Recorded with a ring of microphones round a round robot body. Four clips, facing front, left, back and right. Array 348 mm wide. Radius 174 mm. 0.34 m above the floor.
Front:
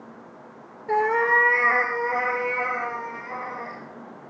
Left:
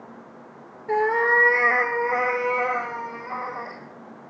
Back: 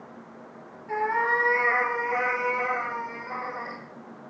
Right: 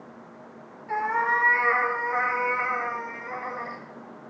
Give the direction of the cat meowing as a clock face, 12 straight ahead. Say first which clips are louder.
Left 4 dB, front 4 dB; 11 o'clock.